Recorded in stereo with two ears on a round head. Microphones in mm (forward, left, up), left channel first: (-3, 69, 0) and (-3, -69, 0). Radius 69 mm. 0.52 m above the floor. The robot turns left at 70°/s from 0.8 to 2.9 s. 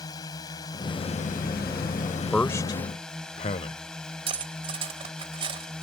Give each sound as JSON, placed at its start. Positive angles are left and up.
{"t": 0.0, "sound": "a drone", "azimuth_deg": 155}
{"t": 2.3, "sound": "a man speaking", "side_deg": 5}
{"t": 4.3, "sound": "cutlery clinking", "side_deg": -35}